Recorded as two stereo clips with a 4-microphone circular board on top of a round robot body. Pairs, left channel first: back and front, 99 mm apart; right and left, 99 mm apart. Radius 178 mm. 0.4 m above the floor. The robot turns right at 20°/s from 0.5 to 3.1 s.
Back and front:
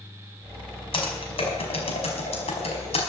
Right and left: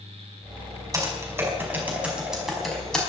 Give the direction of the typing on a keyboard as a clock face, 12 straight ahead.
7 o'clock.